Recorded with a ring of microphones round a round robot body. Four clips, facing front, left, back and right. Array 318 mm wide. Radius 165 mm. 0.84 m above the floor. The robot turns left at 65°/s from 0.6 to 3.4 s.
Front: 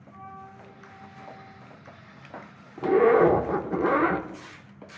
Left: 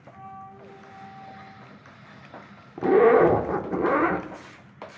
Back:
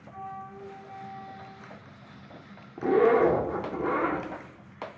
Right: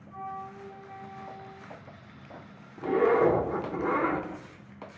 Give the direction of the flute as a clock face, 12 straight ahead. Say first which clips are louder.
Right 4 dB, back 4 dB; 3 o'clock.